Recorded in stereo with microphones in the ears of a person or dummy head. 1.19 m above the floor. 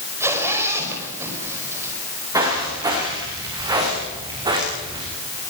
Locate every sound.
0.2 s a zipper: 15° right (ahead or behind), 5.5 m
2.3 s footsteps: 20° right (ahead or behind), 9 m; by 5.0 s 25° right (ahead or behind), 6.5 m